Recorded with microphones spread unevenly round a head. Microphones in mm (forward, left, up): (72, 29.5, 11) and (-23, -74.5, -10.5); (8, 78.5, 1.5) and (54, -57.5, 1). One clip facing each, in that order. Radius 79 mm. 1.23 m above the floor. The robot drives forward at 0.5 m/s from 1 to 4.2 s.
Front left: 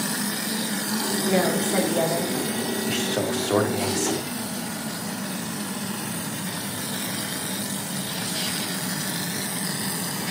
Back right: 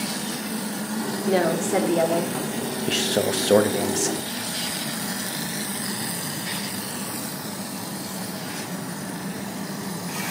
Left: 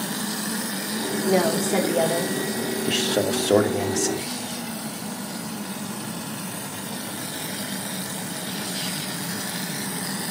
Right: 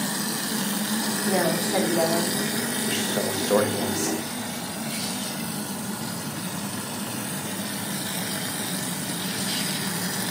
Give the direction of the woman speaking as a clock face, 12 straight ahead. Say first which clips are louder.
Back right 2 dB, left 3 dB; 6 o'clock.